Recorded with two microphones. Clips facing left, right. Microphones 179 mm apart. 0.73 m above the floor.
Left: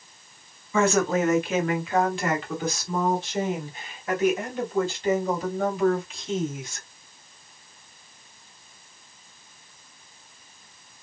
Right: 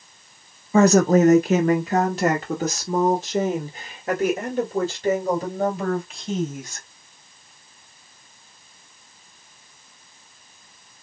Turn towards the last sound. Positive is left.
turn(degrees=-40)  # may be behind; listen again after turning